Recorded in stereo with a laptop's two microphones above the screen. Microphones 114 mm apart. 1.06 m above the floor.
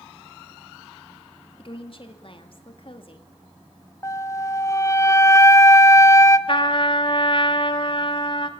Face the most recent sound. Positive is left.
turn(degrees=45)  # may be behind; listen again after turning